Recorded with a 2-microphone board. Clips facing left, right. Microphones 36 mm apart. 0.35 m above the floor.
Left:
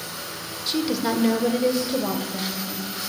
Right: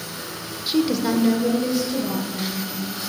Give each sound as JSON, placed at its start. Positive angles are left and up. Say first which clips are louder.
{"t": 0.7, "sound": "a woman speaking", "louder": "right 3 dB", "side_deg": -15, "distance_m": 0.8}